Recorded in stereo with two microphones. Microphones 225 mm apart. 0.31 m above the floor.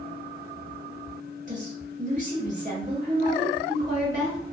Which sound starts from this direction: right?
A woman speaking, at 1.5 s.